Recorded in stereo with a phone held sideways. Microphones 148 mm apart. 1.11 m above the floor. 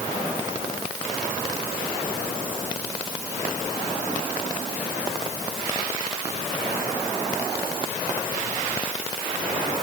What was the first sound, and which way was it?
Only background noise.